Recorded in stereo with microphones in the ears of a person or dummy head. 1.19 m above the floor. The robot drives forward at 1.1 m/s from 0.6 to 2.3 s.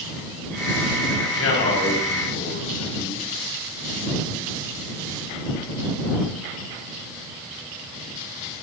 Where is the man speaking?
70° left (ahead or behind), 4.5 m; by 3.3 s 85° left, 4 m.